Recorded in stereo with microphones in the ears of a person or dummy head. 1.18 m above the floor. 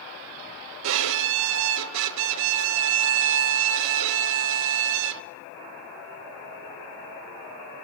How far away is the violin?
About 0.8 m.